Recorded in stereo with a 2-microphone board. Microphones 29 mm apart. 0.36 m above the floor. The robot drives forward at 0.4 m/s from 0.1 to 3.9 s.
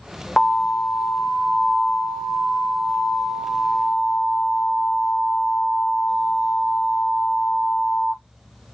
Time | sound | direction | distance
0.4 | an alarm | 25° left (ahead or behind) | 1.1 m